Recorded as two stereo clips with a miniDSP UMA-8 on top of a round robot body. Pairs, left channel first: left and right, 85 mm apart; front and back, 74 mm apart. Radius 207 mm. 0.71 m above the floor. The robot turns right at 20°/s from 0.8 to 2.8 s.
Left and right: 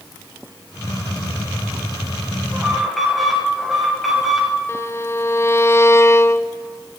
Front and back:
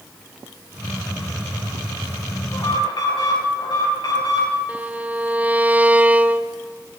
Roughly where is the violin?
Behind left.